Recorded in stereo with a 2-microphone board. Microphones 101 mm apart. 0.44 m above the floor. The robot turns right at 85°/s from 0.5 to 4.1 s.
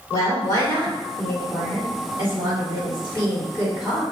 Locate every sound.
0.1 s a woman speaking: 60° left, 1.6 m; by 4.0 s straight ahead, 1.6 m